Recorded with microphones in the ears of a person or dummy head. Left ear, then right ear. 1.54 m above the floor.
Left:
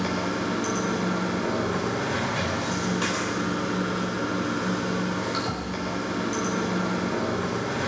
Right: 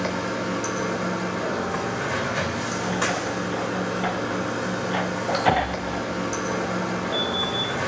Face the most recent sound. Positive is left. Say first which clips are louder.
# right 1 dB
turn(degrees=-20)  # may be behind; listen again after turning